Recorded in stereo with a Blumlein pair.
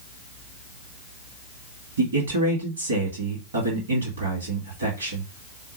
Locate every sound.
2.0 s a man speaking: 65° right, 1.6 m